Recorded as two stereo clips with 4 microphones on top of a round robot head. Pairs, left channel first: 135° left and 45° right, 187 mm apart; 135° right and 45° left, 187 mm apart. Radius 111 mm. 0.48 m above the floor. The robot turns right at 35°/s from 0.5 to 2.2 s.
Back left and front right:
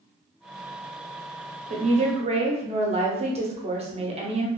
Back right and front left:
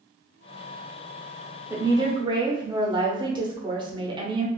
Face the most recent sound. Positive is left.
turn(degrees=-5)